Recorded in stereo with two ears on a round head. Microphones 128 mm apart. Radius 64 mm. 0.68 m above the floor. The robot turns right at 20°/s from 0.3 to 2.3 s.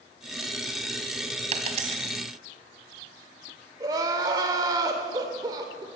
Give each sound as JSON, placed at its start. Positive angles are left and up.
{"t": 1.5, "sound": "a dropped coin", "side_deg": -45, "distance_m": 2.0}
{"t": 3.8, "sound": "crying", "side_deg": -25, "distance_m": 2.0}